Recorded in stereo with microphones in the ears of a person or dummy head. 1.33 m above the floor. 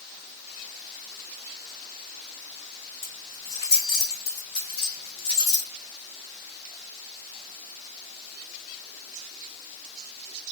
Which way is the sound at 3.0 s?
30° left (ahead or behind).